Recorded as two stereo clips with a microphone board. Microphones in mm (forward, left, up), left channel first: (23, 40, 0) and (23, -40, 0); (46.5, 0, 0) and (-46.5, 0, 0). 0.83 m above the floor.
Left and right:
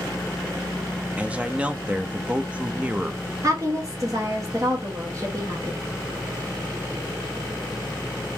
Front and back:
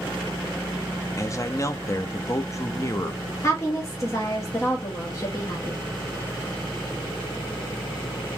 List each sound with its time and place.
1.2 s a man speaking: 25° right, 0.5 m
3.4 s a woman speaking: 50° right, 1.2 m